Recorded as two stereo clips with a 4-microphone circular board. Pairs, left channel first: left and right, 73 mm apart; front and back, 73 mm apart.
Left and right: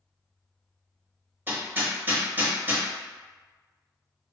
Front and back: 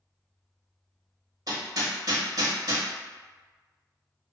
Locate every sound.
1.5 s hammering: 150° right, 0.9 m